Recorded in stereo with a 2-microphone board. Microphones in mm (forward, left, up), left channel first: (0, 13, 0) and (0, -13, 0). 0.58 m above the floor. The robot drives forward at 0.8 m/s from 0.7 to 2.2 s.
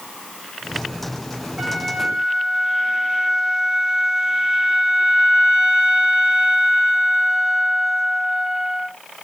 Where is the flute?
60° right (ahead or behind), 3 m; by 8.9 s 50° right (ahead or behind), 3 m.